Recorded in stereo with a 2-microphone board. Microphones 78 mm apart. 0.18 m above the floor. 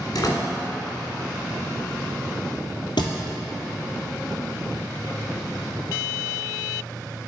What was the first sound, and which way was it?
A door slam, 55° left (ahead or behind).